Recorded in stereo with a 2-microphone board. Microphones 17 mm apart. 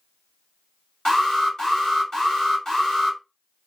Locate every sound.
1.1 s an alarm: 30° left (ahead or behind), 2.5 m